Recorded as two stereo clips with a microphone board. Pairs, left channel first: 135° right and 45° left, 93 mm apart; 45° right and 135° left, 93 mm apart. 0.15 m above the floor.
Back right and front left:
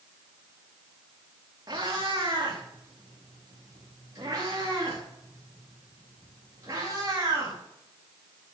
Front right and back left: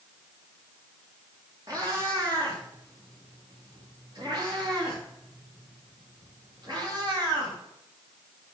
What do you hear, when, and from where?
1.7 s a cat meowing: 90° left, 5 m; by 7.6 s 100° left, 9.5 m